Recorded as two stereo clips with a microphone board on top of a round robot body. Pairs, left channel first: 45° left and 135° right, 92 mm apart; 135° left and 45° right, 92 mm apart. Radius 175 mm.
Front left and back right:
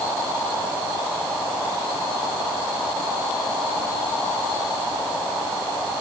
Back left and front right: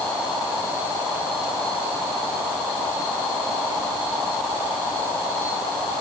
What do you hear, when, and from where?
Only background noise.